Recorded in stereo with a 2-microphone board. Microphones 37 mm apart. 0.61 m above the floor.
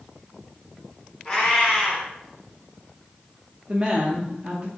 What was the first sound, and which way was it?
A cat meowing, 20° left (ahead or behind).